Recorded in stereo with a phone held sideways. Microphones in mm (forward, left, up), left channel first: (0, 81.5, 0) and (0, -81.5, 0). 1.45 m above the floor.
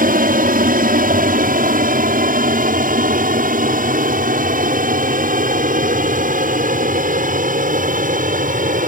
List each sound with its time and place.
0.0 s an aircraft: 60° right (ahead or behind); by 8.9 s 55° right (ahead or behind)